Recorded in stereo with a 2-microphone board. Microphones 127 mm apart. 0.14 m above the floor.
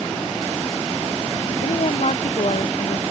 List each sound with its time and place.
1.6 s a woman speaking: 55° left (ahead or behind)